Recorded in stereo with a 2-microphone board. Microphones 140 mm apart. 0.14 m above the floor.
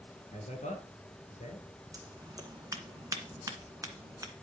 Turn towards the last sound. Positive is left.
turn(degrees=-25)  # may be behind; listen again after turning